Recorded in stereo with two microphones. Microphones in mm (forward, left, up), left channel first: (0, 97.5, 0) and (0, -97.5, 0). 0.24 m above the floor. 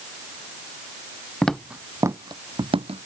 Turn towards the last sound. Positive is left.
turn(degrees=-30)  # may be behind; listen again after turning